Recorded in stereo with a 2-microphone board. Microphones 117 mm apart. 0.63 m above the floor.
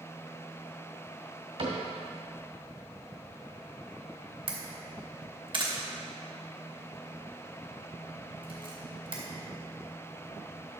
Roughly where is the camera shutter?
Right.